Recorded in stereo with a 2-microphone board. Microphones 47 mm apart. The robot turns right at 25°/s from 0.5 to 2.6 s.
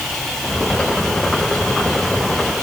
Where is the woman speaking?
I don't hear a woman speaking.